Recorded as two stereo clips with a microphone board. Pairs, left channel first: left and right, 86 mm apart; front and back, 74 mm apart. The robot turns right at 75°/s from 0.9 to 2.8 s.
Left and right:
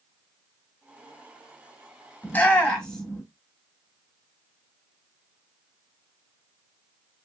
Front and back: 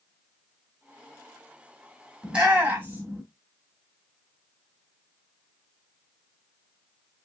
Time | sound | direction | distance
2.2 | a shout | 120° left | 1.6 m